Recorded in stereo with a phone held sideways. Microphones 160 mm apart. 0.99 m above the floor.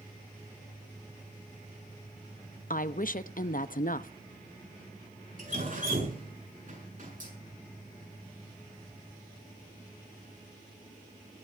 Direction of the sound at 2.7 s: 60° left (ahead or behind).